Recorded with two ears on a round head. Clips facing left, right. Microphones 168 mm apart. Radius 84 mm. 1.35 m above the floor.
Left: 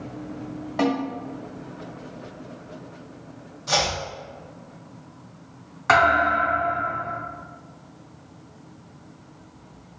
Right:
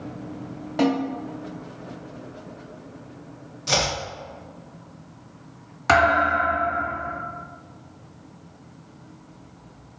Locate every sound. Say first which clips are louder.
0.8 s a snare drum: right 2 dB; 25° right (ahead or behind), 1.1 m
3.7 s chopping: even; 30° right (ahead or behind), 0.6 m
5.9 s a thud: right 1 dB; 40° right (ahead or behind), 1.6 m